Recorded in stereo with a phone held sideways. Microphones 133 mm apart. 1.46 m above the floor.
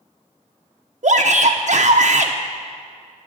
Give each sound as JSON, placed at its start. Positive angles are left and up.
{"t": 1.0, "sound": "a shout", "side_deg": -65, "distance_m": 0.6}